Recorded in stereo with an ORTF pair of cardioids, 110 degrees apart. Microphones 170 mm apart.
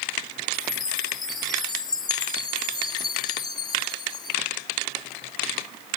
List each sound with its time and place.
0.5 s a chime: 25° left